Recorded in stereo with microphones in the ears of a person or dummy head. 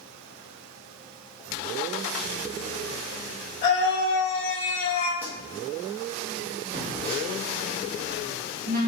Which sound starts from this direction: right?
A phone buzzing, at 6.7 s.